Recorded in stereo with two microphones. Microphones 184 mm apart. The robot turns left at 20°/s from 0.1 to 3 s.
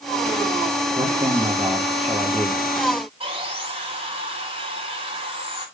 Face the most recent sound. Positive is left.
turn(degrees=-30)  # may be behind; listen again after turning